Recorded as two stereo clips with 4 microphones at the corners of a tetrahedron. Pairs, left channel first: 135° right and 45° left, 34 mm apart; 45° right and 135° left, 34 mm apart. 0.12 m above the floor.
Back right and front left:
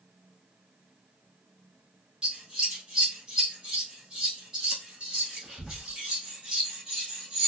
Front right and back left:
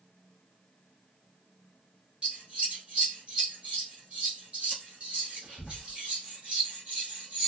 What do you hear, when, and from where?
2.2 s scissors: 105° left, 1.4 m